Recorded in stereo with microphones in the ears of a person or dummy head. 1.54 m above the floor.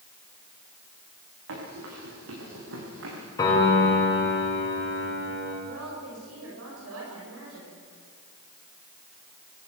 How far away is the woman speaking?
About 7 m.